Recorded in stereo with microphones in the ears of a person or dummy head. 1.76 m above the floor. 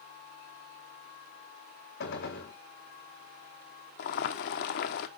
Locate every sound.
2.0 s a gunshot: 60° left (ahead or behind), 1.7 m
4.0 s boiling: 55° left (ahead or behind), 0.9 m